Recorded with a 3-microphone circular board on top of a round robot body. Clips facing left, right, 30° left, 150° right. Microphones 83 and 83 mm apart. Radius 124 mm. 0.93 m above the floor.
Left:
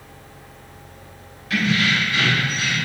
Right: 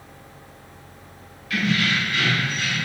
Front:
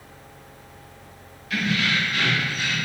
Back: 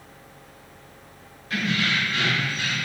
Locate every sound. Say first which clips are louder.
1.5 s keys jangling: left 2 dB, front 1 dB; 150° left, 3 m